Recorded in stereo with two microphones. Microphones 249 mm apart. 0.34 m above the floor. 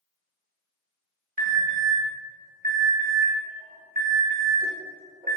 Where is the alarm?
35° right (ahead or behind), 1.3 m.